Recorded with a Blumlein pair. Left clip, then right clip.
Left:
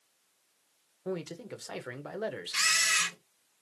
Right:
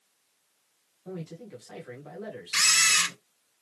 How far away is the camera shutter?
About 1.3 m.